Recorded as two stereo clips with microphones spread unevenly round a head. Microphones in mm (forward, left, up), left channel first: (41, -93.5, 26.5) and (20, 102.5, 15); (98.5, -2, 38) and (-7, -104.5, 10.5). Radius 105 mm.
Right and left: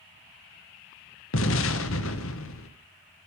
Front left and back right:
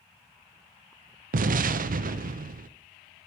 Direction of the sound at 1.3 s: 110° right.